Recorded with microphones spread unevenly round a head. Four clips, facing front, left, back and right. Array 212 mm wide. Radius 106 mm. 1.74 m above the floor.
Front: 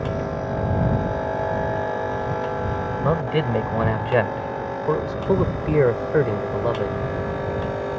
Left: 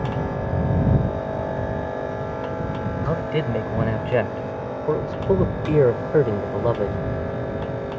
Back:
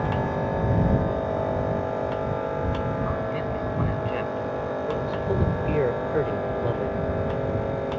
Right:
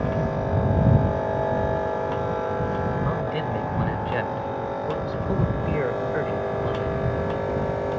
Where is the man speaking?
40° left; by 7.1 s 80° left.